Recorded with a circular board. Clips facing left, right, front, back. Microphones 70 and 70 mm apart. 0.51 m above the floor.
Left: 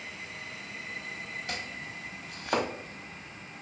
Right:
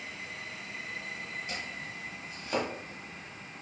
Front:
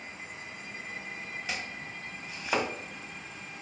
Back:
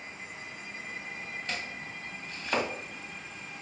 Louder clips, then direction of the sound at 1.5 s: Left 1 dB, even; 85° left.